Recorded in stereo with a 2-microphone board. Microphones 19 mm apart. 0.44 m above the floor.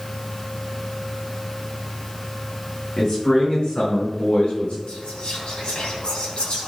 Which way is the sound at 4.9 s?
65° left (ahead or behind).